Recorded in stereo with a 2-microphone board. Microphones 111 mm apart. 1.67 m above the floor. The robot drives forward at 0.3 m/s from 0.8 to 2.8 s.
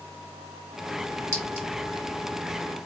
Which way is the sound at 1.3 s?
20° right (ahead or behind).